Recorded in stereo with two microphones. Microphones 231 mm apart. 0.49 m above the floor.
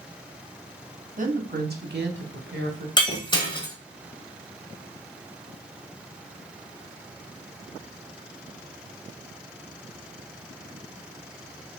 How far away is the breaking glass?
About 1.2 m.